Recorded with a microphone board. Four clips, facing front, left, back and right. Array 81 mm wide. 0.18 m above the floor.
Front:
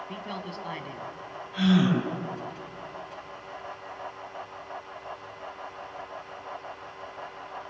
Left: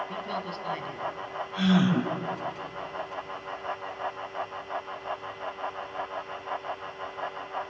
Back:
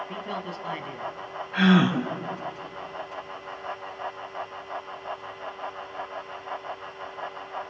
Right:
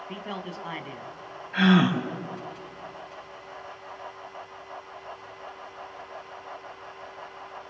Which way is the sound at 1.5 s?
125° right.